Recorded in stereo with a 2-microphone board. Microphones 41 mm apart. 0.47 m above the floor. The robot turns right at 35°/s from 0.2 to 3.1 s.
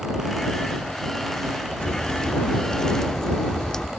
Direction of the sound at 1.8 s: 25° left (ahead or behind).